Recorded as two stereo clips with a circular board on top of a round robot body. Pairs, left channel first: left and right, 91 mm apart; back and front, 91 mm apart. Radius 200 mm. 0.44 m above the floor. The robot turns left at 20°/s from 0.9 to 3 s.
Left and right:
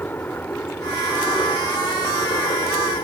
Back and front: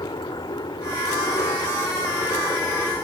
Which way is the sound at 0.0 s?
155° left.